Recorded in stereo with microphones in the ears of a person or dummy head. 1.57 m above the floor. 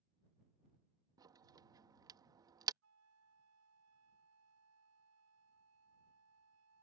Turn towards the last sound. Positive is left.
turn(degrees=-80)